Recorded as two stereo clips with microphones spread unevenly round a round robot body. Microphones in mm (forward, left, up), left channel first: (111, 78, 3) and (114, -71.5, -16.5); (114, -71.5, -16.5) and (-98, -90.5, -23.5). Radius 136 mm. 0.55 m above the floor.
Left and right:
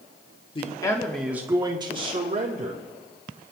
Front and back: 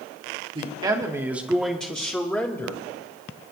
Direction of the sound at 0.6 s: 135° left.